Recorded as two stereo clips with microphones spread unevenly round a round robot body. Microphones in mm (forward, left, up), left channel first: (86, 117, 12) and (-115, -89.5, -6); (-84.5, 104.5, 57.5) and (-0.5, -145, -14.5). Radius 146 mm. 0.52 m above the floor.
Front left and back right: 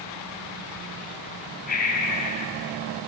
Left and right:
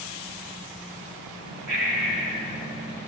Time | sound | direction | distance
1.7 | breathing | 15° right | 4 m